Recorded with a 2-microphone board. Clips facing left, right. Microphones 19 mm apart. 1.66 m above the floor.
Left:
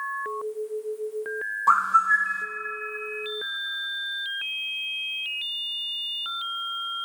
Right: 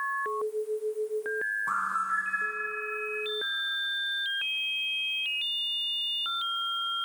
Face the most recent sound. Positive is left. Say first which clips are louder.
# left 14 dB
turn(degrees=60)  # may be behind; listen again after turning